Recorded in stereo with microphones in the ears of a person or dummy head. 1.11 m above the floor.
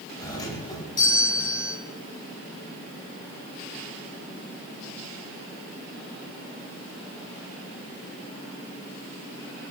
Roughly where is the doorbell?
Left.